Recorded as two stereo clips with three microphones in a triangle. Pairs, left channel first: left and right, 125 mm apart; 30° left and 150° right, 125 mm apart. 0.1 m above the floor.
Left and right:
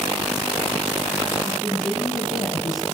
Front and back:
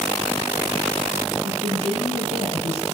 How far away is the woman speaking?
About 5 m.